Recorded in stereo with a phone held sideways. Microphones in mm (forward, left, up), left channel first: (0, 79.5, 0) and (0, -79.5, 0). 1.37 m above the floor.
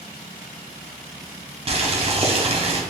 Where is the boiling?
40° right (ahead or behind), 0.6 m.